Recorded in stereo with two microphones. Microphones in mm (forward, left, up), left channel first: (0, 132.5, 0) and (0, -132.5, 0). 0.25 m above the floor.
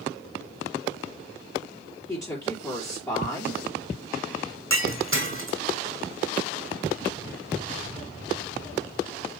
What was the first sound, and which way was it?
A woman speaking, 10° left (ahead or behind).